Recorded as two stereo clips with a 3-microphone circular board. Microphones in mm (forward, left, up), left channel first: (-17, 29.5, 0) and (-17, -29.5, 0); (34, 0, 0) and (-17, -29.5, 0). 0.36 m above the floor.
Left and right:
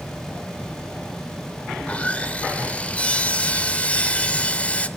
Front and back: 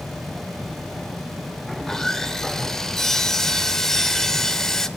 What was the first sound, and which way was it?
Sawing, 100° left.